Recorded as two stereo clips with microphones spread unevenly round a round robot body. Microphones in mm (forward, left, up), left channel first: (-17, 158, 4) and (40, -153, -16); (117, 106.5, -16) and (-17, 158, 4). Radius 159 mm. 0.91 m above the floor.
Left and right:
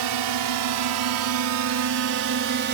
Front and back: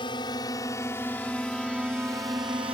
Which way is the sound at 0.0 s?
90° right.